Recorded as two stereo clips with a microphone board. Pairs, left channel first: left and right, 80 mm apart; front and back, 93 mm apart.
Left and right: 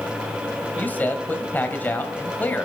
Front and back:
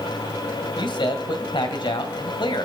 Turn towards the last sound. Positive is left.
turn(degrees=25)